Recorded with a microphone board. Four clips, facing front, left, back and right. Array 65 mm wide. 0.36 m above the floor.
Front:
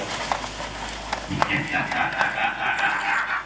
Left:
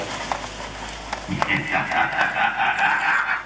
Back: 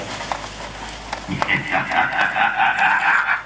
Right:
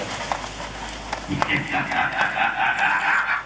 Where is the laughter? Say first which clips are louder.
Left 1 dB, back 4 dB; 165° left, 3 m; by 3.4 s straight behind, 2 m.